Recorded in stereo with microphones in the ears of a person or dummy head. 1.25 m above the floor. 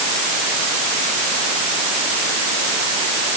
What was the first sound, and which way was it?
Only background noise.